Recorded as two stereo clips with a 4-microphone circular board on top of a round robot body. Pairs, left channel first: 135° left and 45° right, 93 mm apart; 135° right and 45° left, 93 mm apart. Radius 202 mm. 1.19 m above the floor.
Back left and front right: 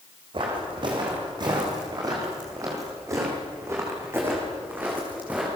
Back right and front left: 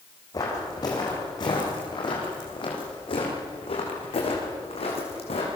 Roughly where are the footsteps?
Right.